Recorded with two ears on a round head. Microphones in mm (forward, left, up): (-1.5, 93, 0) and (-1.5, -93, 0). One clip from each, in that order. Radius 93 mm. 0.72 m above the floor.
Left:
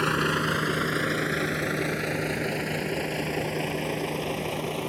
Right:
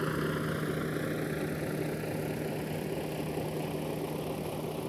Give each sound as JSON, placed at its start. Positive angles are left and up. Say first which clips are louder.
{"t": 0.0, "sound": "a vehicle", "louder": "left 9 dB", "side_deg": 65}